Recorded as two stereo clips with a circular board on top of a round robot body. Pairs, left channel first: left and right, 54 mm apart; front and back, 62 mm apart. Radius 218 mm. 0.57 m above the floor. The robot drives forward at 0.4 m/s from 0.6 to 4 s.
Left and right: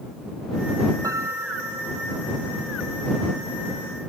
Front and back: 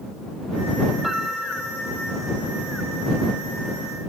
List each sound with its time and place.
1.0 s a piano: 95° right